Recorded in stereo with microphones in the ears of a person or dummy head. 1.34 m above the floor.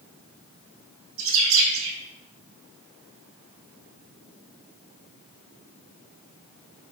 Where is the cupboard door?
No cupboard door in this recording.